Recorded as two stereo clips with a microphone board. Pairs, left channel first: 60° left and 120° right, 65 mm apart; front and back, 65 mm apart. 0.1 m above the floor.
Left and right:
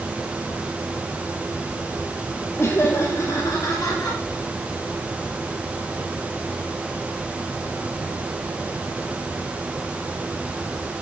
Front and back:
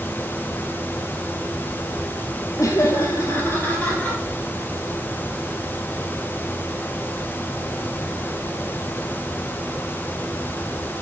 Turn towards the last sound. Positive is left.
turn(degrees=70)